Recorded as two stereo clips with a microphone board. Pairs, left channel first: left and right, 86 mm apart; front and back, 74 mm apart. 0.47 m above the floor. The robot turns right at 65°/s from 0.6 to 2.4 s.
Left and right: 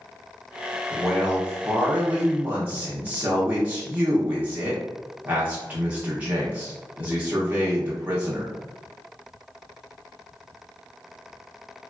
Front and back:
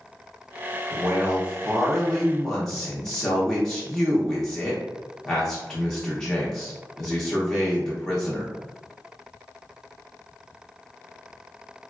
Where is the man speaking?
170° right, 0.7 m; by 8.5 s 70° right, 0.7 m.